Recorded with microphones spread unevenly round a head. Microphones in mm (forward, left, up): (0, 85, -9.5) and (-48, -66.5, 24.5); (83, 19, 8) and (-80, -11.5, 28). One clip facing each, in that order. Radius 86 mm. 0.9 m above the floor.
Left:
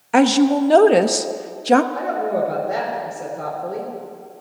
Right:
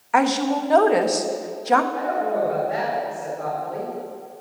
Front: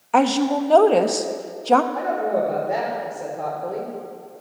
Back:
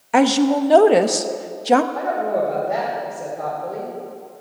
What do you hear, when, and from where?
0.1 s a woman speaking: 115° left, 0.8 m
1.9 s a woman speaking: 90° left, 4 m